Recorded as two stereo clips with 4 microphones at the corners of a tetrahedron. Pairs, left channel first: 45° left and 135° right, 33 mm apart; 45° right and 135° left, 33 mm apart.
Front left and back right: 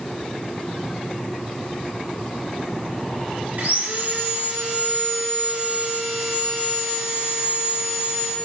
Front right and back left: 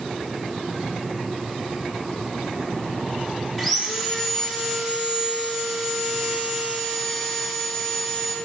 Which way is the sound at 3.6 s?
130° right.